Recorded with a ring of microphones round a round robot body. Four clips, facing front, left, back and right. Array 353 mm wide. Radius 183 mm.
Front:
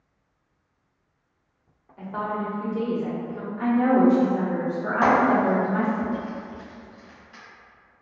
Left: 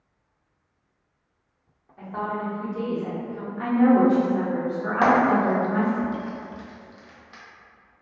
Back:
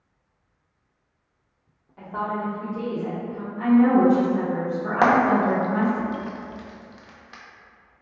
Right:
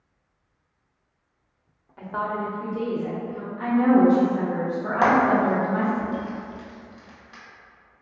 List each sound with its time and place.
2.0 s a woman speaking: 105° right, 1.0 m; by 3.5 s 15° left, 1.5 m
3.6 s a woman speaking: 60° left, 1.3 m
5.0 s frying: 175° left, 0.9 m